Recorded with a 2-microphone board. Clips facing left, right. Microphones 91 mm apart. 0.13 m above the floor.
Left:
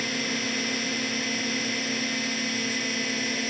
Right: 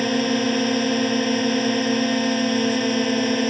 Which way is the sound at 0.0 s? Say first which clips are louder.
Right 10 dB; 55° right (ahead or behind).